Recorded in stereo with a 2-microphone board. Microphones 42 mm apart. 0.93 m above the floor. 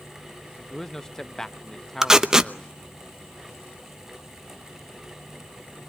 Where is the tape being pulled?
15° right (ahead or behind), 0.8 m.